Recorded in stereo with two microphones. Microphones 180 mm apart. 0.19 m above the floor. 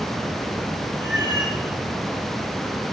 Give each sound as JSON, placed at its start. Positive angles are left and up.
{"t": 1.0, "sound": "a cat meowing", "side_deg": 80, "distance_m": 5.5}